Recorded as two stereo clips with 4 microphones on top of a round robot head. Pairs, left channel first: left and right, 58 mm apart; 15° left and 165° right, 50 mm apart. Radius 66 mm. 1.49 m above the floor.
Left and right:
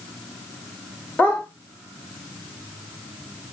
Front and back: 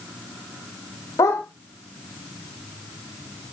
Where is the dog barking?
25° left, 2.5 m.